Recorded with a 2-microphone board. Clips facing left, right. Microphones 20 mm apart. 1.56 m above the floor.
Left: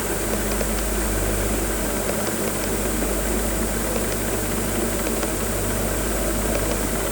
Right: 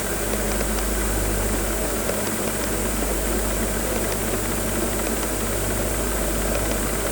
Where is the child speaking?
I don't hear a child speaking.